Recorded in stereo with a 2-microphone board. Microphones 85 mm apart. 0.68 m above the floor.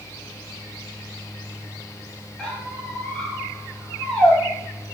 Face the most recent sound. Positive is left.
turn(degrees=10)  # may be behind; listen again after turning